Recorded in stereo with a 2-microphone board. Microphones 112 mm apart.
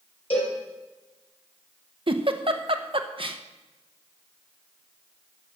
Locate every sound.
0.3 s a cowbell: 55° left (ahead or behind), 5 m
2.1 s a giggle: 50° right (ahead or behind), 0.9 m